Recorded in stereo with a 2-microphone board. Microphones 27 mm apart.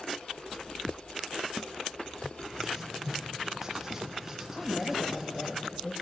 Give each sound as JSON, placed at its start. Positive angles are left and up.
{"t": 2.6, "sound": "writing", "side_deg": -15, "distance_m": 2.5}
{"t": 4.5, "sound": "a woman speaking", "side_deg": 25, "distance_m": 8.0}